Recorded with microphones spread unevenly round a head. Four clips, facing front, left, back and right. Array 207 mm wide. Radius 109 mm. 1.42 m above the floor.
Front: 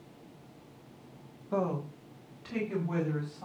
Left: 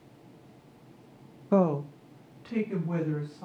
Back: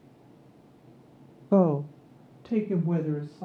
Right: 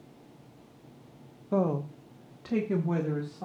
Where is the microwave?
I don't hear a microwave.